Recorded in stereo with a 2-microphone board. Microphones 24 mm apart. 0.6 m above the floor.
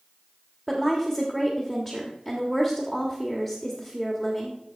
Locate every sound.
0.7 s a woman speaking: 10° right (ahead or behind), 1.6 m